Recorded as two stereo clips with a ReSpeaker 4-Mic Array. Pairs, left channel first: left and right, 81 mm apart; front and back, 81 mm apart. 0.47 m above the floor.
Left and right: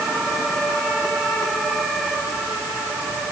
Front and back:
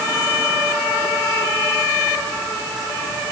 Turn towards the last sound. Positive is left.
No sound to turn to.